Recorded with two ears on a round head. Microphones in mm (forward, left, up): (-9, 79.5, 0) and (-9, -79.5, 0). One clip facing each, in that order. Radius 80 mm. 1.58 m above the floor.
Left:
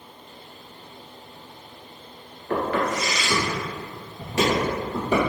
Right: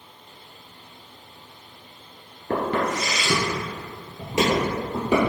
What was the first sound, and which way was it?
Footsteps, 25° right (ahead or behind).